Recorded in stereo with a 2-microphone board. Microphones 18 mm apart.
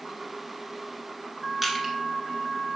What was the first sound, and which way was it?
Crushing, 20° right (ahead or behind).